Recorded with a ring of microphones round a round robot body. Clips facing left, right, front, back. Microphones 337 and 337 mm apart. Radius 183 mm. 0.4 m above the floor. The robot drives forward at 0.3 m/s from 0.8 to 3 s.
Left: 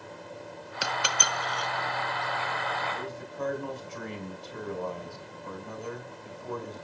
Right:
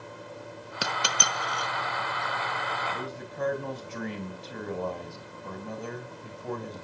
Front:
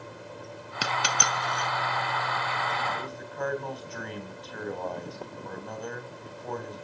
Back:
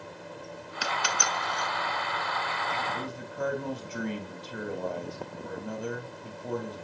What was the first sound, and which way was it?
A dropped coin, 45° right.